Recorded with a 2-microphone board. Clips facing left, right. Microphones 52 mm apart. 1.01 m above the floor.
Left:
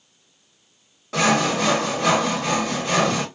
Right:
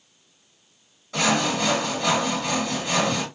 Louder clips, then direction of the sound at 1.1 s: Left 3 dB; 75° left (ahead or behind).